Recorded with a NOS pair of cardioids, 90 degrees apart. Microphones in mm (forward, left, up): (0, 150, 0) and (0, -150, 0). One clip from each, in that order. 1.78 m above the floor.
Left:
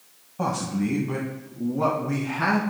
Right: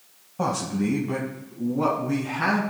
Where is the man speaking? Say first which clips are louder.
Right 1 dB; 10° right, 1.2 m; by 2.6 s 5° left, 2.5 m.